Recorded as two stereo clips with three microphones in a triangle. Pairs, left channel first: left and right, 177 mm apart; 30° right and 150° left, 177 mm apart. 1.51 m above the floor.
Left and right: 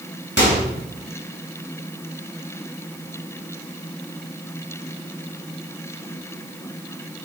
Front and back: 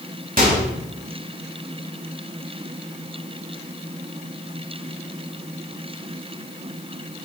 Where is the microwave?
110° left, 2.5 m.